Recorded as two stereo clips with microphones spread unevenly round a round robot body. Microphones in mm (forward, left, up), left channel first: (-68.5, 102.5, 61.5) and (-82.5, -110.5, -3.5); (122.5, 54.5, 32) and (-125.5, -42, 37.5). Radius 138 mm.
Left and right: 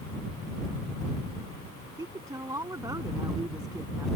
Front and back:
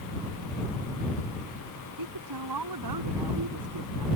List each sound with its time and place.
2.0 s a woman speaking: 170° right